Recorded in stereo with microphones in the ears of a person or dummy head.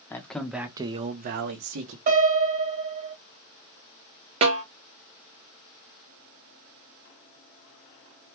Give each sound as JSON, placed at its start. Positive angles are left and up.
{"t": 0.1, "sound": "a man speaking", "side_deg": 15, "distance_m": 0.7}
{"t": 2.1, "sound": "a piano", "side_deg": -50, "distance_m": 1.6}
{"t": 4.4, "sound": "a snare drum", "side_deg": -30, "distance_m": 0.6}